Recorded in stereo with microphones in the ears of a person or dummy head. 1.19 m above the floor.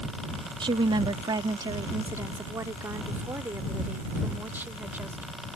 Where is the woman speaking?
35° right (ahead or behind); by 5.3 s 20° right (ahead or behind).